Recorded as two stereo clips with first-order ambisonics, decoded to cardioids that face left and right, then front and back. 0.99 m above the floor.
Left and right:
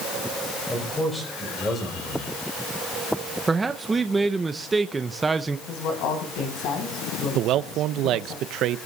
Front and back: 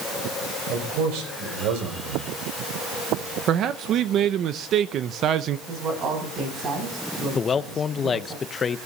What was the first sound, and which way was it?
A man speaking, 170° left.